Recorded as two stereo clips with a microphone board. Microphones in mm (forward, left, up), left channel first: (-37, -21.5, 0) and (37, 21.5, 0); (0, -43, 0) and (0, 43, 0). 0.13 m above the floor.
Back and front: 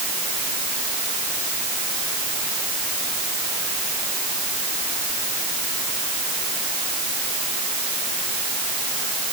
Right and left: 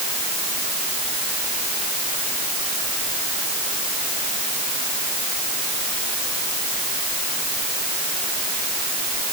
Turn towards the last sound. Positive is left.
No sound to turn to.